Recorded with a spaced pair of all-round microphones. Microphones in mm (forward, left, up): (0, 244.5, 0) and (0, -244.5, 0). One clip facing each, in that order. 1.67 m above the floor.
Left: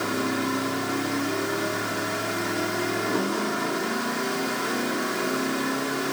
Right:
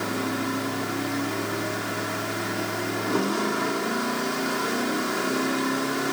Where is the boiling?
I don't hear boiling.